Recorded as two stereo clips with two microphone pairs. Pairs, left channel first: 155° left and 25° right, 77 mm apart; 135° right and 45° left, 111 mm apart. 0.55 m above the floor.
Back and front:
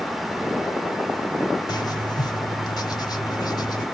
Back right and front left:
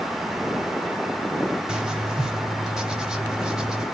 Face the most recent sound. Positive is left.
turn(degrees=125)